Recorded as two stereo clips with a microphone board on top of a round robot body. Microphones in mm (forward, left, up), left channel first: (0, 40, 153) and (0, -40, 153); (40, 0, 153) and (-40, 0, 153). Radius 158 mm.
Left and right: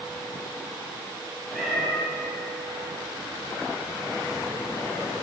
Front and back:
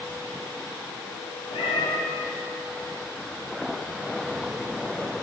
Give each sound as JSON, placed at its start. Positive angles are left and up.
{"t": 1.5, "sound": "a cat meowing", "azimuth_deg": 0, "distance_m": 1.3}